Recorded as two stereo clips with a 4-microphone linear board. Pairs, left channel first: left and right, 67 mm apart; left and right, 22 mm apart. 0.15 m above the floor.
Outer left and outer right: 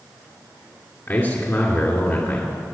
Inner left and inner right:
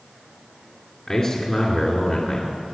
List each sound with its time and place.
1.1 s a man speaking: 35° left (ahead or behind), 2 m